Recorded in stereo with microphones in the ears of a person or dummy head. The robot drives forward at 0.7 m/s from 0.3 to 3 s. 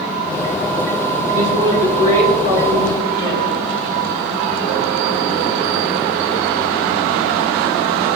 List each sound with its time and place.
1.3 s a woman speaking: 45° right (ahead or behind), 2.0 m; by 3.5 s 30° right (ahead or behind), 3 m